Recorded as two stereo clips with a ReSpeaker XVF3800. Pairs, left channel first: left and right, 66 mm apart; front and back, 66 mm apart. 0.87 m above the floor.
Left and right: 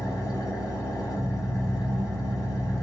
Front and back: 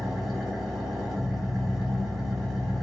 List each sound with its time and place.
0.0 s an engine running: 90° left, 1.3 m